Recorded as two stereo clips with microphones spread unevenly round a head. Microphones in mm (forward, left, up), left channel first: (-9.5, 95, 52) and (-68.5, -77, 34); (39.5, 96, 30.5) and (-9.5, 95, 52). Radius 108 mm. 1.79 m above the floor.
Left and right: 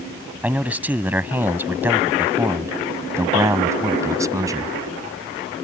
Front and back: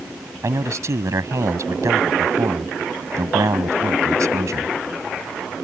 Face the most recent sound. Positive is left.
turn(degrees=180)